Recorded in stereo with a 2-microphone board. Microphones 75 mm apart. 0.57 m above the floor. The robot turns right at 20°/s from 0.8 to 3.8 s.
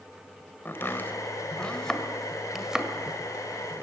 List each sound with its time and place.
0.7 s chopping: 30° left (ahead or behind), 1.7 m; by 3.8 s 30° right (ahead or behind), 1.7 m